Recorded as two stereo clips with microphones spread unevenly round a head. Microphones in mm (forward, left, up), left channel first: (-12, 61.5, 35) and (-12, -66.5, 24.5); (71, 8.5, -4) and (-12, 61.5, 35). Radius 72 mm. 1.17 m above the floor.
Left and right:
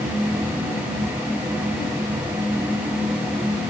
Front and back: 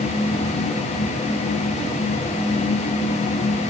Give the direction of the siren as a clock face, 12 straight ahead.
I don't hear a siren.